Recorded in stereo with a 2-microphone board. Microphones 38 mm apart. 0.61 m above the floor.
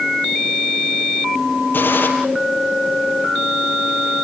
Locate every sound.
1.7 s a gunshot: 70° left (ahead or behind), 5.5 m